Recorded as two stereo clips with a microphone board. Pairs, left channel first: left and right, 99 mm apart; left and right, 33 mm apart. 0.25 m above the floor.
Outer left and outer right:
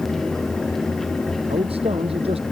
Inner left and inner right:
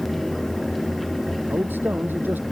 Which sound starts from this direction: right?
A man speaking, at 1.5 s.